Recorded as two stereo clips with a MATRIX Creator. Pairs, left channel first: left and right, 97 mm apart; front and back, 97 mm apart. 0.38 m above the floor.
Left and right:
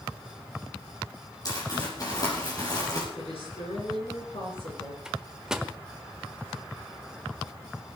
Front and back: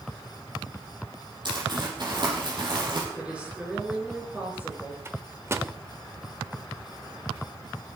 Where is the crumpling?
140° left, 7 m.